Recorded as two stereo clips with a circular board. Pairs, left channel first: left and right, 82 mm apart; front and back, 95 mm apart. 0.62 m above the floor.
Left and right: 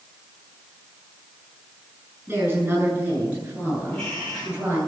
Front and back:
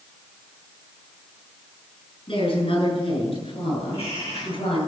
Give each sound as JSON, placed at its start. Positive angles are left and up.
{"t": 2.3, "sound": "a woman speaking", "azimuth_deg": -20, "distance_m": 8.5}
{"t": 3.9, "sound": "a bird", "azimuth_deg": 5, "distance_m": 9.5}